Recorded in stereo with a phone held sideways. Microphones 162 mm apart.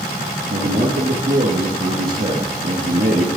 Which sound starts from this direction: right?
A man speaking, at 0.5 s.